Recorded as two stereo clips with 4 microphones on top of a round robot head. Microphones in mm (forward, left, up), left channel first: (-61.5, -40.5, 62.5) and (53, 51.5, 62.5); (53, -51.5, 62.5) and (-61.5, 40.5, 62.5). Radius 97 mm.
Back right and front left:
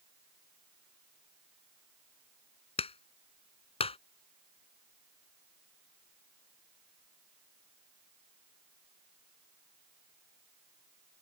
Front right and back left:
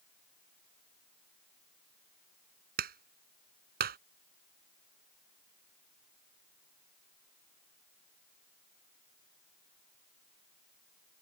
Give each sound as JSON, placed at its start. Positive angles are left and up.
{"t": 2.8, "sound": "a clap", "azimuth_deg": 165}